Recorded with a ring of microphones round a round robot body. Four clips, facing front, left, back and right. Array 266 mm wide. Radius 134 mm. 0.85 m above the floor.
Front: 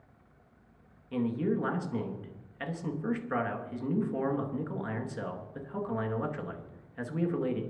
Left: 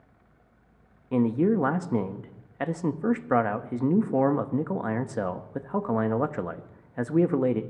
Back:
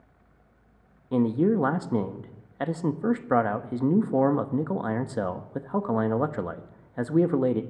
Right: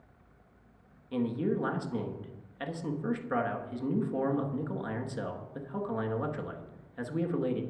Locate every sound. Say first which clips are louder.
1.1 s a man speaking: left 8 dB, back 8 dB; 140° left, 1.1 m